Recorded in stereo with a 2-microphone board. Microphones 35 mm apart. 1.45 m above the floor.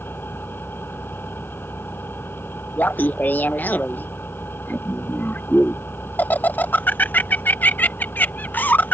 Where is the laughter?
55° left (ahead or behind).